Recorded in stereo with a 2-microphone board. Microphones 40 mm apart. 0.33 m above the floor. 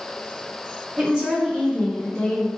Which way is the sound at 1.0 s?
25° right (ahead or behind).